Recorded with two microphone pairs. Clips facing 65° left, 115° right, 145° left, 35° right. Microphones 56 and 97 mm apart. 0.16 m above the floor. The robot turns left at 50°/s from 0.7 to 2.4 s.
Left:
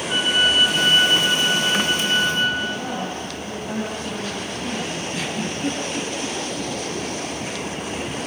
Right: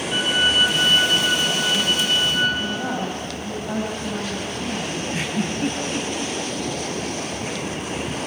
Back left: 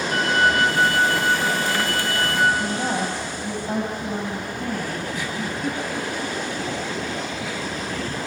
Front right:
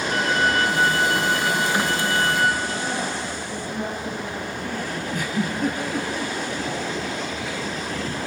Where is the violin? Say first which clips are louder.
Left 1 dB, back left 2 dB; 15° left, 6.5 m; by 2.5 s 70° right, 6.5 m.